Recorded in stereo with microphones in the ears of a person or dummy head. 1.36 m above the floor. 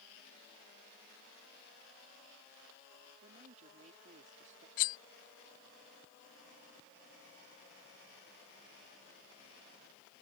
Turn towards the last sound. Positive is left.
turn(degrees=45)  # may be behind; listen again after turning